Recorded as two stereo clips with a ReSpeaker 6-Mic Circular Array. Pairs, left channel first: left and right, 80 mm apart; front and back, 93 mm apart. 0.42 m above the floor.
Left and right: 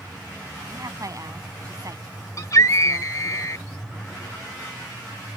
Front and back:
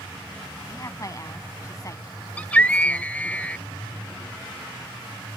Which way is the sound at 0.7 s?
50° right.